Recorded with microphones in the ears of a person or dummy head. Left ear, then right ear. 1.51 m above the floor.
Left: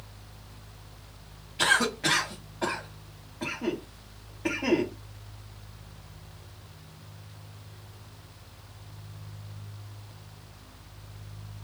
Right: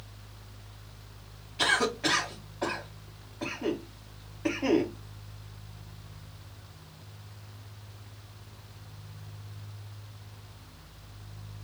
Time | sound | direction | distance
1.6 | a cough | 5° left (ahead or behind) | 0.9 m